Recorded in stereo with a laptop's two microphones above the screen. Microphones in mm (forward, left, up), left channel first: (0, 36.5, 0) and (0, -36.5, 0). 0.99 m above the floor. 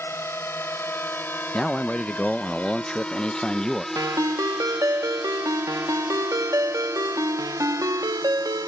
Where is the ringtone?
50° right (ahead or behind).